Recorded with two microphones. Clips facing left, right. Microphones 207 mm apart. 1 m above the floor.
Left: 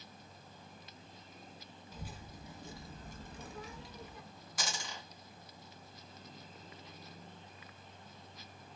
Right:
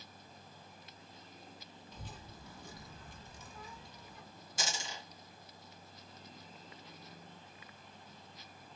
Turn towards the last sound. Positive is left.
turn(degrees=-25)  # may be behind; listen again after turning